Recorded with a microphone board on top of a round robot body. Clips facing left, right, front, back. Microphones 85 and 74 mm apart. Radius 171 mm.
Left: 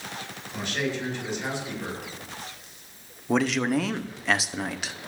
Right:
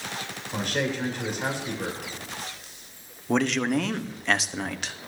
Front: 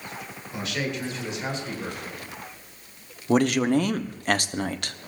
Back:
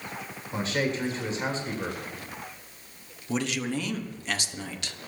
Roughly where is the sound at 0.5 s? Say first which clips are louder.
Right 2 dB, back 2 dB; behind right.